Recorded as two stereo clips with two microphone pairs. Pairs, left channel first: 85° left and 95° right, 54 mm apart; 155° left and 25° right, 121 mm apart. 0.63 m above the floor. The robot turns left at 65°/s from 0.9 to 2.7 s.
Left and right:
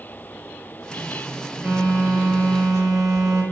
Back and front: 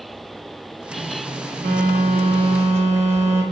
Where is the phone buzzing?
30° right, 0.7 m; by 3.4 s 95° right, 0.7 m.